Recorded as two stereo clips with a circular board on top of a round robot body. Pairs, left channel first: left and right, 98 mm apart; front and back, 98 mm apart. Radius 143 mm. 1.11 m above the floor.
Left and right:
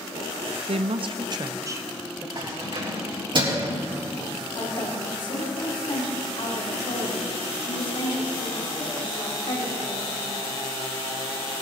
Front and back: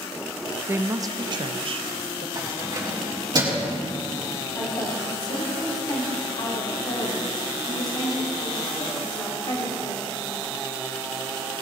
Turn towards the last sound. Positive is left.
turn(degrees=50)